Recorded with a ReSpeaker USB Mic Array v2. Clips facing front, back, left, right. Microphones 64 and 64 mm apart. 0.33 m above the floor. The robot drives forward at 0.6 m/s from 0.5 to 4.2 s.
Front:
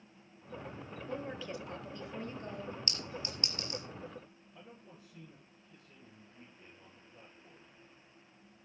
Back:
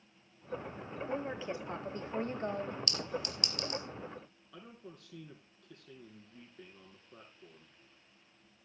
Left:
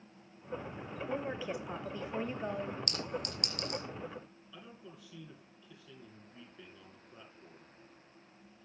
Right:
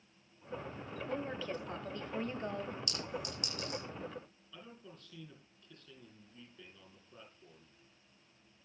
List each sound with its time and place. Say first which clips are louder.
1.1 s a woman speaking: back 3 dB, left 2 dB; 135° left, 1.1 m; by 2.8 s 170° left, 1.7 m
2.9 s a clink: back 4 dB, left 2 dB; 60° left, 4 m; by 3.8 s 65° left, 4 m
4.5 s a man speaking: back 5 dB, left 1 dB; 170° left, 9.5 m